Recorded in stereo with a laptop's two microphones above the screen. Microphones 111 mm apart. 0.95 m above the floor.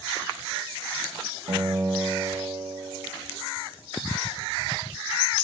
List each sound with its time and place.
1.5 s a guitar: 65° right (ahead or behind), 0.8 m